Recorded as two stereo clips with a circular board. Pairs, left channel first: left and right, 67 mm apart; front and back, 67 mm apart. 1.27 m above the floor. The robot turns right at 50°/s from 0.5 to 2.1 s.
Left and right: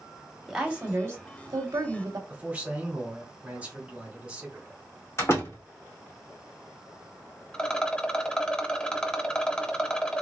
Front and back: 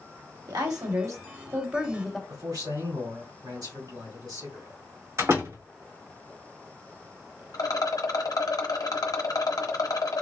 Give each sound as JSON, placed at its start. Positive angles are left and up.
{"t": 0.5, "sound": "a woman speaking", "azimuth_deg": -170, "distance_m": 1.2}
{"t": 2.3, "sound": "a man speaking", "azimuth_deg": -160, "distance_m": 2.5}
{"t": 5.2, "sound": "a door slam", "azimuth_deg": 135, "distance_m": 2.5}
{"t": 7.5, "sound": "a rattle", "azimuth_deg": 15, "distance_m": 0.7}